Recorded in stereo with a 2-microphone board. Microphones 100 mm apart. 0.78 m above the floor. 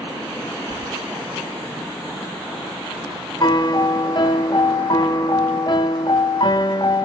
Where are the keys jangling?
50° right (ahead or behind), 0.9 m.